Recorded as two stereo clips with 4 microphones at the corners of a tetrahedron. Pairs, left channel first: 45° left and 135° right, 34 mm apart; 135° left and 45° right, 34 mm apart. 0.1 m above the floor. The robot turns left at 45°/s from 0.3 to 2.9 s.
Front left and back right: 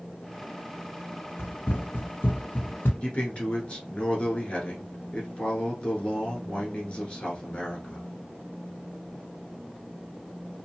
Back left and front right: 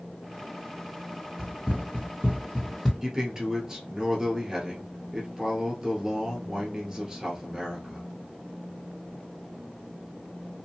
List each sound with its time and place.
1.4 s running footsteps: 50° left, 0.7 m; by 2.9 s 55° left, 0.7 m
3.0 s a man speaking: 20° left, 1.4 m